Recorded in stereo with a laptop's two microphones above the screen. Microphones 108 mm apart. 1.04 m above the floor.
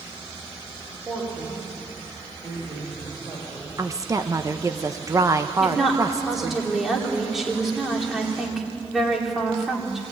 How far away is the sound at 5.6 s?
About 3 m.